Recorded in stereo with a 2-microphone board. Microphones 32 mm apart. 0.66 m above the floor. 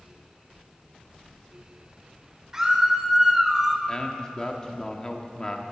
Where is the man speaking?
20° left (ahead or behind), 1.2 m.